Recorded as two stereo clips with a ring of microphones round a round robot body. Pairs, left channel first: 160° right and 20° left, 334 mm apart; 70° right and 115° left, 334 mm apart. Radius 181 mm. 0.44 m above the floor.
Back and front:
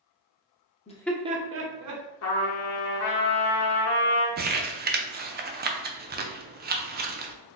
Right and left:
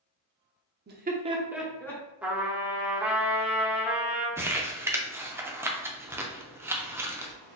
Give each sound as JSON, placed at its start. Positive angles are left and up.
{"t": 0.9, "sound": "laughter", "azimuth_deg": 145, "distance_m": 0.8}
{"t": 2.2, "sound": "a trumpet", "azimuth_deg": -165, "distance_m": 1.0}
{"t": 4.4, "sound": "crumpling", "azimuth_deg": 40, "distance_m": 0.6}